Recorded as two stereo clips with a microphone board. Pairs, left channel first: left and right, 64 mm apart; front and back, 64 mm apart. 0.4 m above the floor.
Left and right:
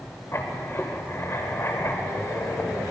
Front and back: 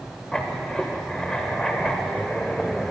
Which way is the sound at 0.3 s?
75° left.